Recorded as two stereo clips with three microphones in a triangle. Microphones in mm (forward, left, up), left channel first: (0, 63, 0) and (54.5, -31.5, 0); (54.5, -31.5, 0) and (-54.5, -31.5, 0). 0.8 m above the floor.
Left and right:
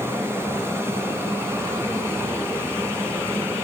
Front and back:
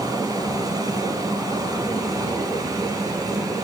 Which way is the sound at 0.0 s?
125° right.